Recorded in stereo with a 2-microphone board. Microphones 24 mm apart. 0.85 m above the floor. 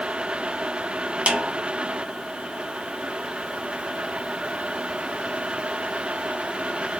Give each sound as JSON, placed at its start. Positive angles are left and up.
{"t": 1.3, "sound": "a snare drum", "side_deg": -50, "distance_m": 1.0}